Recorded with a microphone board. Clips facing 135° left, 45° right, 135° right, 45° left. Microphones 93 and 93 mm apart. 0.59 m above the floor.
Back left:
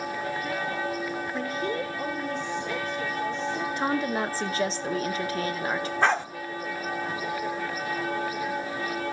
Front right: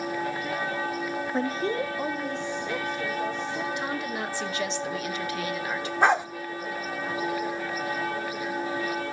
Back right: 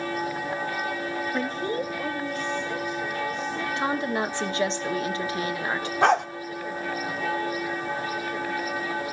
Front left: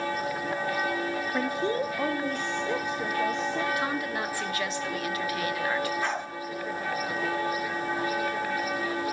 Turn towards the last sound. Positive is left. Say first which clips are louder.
# front right 3 dB, back right 10 dB
turn(degrees=-120)